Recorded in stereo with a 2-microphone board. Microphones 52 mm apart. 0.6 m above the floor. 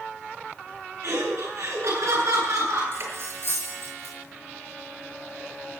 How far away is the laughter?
About 8.5 m.